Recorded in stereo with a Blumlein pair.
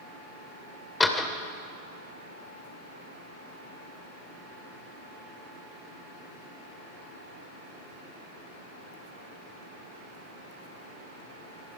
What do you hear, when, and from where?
1.0 s a door slam: 15° left, 2.5 m